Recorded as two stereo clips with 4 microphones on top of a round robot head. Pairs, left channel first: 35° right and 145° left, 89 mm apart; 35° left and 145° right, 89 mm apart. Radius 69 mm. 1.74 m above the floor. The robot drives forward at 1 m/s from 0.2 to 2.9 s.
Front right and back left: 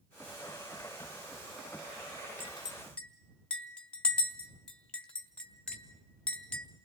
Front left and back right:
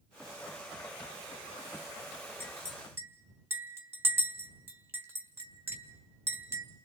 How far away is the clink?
About 0.8 m.